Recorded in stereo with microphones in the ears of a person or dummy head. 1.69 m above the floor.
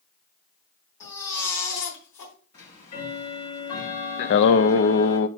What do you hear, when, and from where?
1.0 s a baby crying: 50° left (ahead or behind), 3.5 m
2.5 s ticking: 45° left (ahead or behind), 3.5 m
4.2 s singing: 65° left (ahead or behind), 0.5 m